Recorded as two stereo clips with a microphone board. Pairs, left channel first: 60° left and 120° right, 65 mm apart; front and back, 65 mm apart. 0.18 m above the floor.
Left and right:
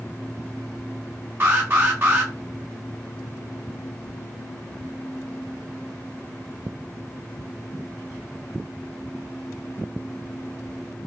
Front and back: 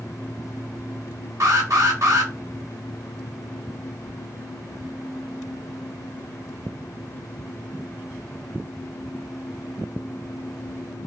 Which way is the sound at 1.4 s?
165° right.